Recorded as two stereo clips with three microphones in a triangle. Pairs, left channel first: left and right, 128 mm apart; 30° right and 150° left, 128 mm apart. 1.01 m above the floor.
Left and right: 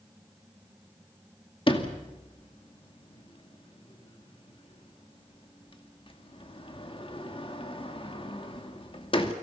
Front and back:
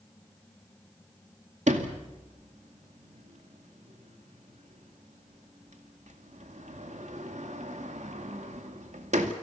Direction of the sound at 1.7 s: 135° left.